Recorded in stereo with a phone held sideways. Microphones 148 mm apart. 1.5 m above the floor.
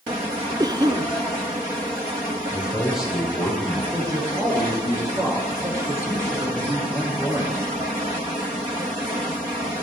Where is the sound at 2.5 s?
5° right (ahead or behind), 6.5 m.